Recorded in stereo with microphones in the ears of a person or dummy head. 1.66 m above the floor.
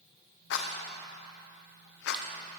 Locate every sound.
0.5 s a rattle: 70° left (ahead or behind), 0.7 m